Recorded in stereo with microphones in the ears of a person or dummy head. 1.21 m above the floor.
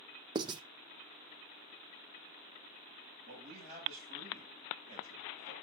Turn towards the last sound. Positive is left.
turn(degrees=-45)  # may be behind; listen again after turning